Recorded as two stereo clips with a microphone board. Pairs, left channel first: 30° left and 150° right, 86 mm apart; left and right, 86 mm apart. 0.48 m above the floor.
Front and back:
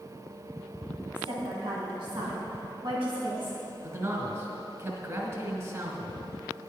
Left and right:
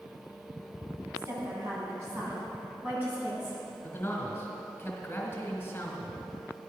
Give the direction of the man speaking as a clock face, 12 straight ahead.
7 o'clock.